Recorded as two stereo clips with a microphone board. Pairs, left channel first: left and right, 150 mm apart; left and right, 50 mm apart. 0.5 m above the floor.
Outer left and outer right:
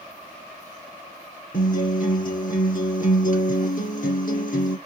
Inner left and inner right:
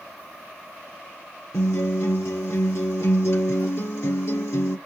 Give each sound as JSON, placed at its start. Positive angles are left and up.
{"t": 1.5, "sound": "a guitar", "side_deg": 70, "distance_m": 2.0}